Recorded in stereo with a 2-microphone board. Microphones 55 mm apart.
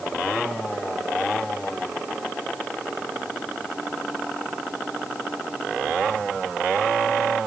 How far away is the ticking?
No ticking in this recording.